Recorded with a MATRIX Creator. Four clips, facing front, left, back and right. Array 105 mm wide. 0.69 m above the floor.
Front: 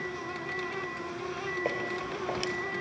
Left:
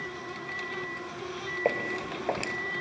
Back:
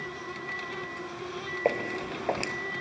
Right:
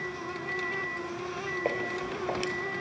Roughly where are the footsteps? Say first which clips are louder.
Left 3 dB, back 7 dB; behind left.